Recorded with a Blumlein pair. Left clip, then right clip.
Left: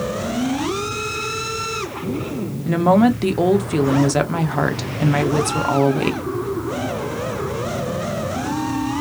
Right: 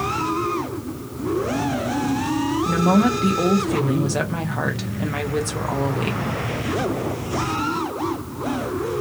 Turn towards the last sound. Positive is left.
turn(degrees=15)